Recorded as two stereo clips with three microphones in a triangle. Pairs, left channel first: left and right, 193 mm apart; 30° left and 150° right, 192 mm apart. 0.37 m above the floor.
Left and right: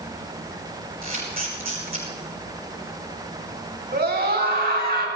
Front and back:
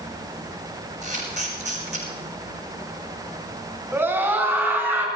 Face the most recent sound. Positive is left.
turn(degrees=-70)